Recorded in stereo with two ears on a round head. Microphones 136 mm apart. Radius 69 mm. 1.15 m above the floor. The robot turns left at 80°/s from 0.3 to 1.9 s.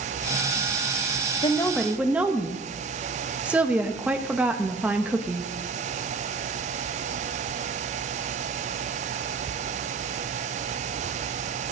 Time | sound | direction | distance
1.4 | a woman speaking | 30° left | 1.1 m